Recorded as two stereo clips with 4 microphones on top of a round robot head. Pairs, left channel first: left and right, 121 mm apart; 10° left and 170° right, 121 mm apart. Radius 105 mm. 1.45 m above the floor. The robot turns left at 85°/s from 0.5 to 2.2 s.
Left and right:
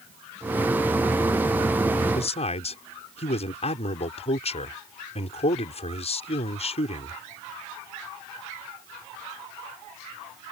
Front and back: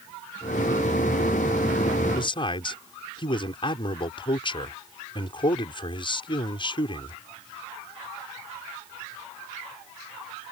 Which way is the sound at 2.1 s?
60° left.